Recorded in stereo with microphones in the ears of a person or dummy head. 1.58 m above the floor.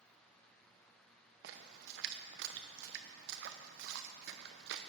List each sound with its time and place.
1.4 s a splash: 65° right (ahead or behind), 0.8 m